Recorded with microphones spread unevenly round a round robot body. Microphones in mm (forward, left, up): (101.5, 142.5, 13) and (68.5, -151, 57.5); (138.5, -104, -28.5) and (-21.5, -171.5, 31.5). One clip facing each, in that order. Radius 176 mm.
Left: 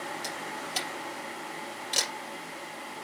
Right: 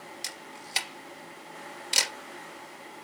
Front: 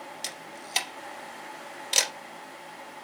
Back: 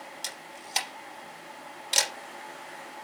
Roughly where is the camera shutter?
Ahead right.